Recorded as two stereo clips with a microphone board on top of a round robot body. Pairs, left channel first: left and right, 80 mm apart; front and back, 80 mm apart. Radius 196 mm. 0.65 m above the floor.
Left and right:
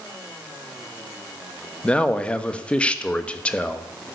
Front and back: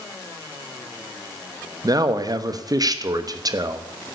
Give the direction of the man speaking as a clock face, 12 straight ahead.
7 o'clock.